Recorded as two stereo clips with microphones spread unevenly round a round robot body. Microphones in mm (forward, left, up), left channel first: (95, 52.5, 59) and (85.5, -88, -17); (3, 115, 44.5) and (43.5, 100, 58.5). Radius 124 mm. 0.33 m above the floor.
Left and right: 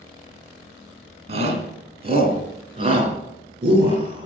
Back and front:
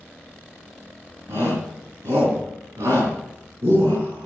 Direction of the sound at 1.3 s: 70° right.